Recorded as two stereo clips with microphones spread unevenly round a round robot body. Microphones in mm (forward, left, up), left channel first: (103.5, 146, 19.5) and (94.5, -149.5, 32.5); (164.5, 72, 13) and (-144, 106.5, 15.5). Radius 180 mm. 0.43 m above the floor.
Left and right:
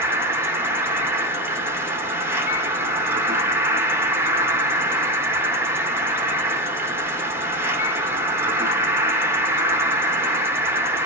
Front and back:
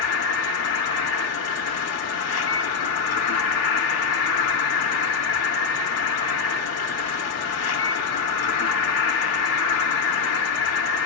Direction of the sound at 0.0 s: 10° right.